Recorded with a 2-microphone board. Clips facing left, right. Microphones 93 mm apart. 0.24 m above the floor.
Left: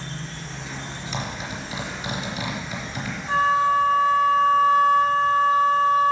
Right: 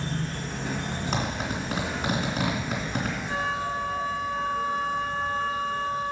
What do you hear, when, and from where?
0.0 s an insect: 65° right (ahead or behind), 1.5 m
1.1 s a zipper: 60° right (ahead or behind), 3 m
3.3 s a flute: 60° left (ahead or behind), 0.7 m